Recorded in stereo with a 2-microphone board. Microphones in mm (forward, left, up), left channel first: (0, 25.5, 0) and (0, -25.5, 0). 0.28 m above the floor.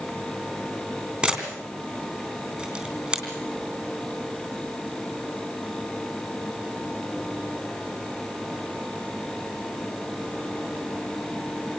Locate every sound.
1.2 s a camera shutter: 20° right (ahead or behind), 3 m